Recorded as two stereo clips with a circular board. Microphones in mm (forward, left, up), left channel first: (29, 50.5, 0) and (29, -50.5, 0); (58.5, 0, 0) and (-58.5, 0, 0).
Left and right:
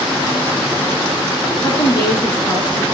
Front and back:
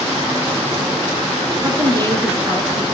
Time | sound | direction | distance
1.6 | a woman speaking | 130° left | 3 m